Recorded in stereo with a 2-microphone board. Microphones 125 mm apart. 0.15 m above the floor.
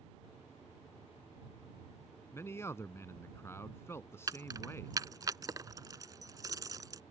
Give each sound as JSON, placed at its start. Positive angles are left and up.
{"t": 2.3, "sound": "a man speaking", "side_deg": 20}
{"t": 4.3, "sound": "keys jangling", "side_deg": -30}